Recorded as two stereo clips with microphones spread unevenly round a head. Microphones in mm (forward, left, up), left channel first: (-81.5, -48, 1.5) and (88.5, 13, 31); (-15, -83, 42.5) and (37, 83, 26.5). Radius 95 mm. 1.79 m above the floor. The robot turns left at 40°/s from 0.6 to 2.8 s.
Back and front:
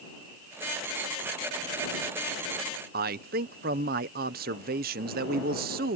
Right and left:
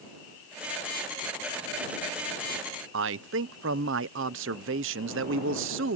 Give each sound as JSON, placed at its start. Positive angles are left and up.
{"t": 2.9, "sound": "a man speaking", "azimuth_deg": 55}